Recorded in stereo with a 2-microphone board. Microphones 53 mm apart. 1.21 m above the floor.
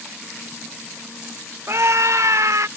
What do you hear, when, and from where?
1.7 s a scream: 55° right (ahead or behind); by 2.7 s 70° right (ahead or behind)